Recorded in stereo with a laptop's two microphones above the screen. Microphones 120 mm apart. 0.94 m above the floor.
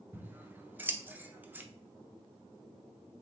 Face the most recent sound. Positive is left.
turn(degrees=-15)  # may be behind; listen again after turning